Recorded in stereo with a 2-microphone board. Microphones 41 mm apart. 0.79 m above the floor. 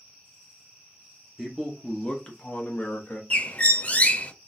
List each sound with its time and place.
1.4 s a man speaking: 5° right (ahead or behind), 0.8 m; by 3.2 s 45° left (ahead or behind), 1.0 m
3.3 s a bird: 35° left (ahead or behind), 0.5 m